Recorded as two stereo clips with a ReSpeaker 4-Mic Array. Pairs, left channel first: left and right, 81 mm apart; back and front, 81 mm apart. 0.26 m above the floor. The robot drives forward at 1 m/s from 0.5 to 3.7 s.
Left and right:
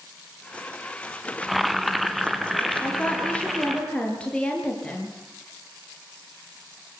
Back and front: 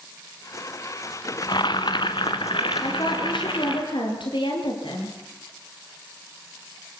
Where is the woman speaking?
165° left, 4 m.